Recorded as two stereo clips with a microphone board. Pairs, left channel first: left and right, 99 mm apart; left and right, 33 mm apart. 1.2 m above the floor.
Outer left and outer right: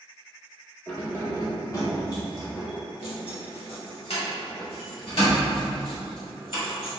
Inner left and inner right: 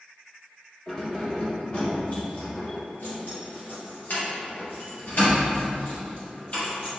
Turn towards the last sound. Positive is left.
turn(degrees=55)  # may be behind; listen again after turning